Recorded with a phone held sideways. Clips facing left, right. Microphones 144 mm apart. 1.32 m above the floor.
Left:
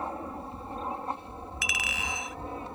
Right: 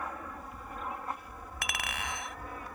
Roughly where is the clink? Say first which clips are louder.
Even; right.